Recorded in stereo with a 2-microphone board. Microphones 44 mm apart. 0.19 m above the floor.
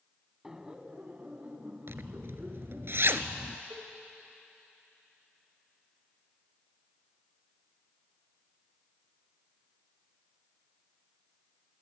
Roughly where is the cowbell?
Right.